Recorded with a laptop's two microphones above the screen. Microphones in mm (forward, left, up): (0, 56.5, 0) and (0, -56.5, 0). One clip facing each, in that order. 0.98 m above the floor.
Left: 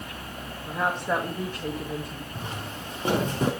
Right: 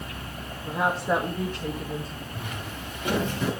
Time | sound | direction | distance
0.7 | a woman speaking | 10° right (ahead or behind) | 1.7 m
2.4 | footsteps | 30° left (ahead or behind) | 5 m